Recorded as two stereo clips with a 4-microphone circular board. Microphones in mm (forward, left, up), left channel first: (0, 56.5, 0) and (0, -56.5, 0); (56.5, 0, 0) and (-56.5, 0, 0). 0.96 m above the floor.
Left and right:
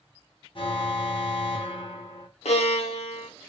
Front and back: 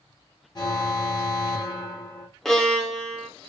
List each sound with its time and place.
0.6 s an alarm: 50° left, 0.7 m
2.5 s a violin: 85° left, 0.6 m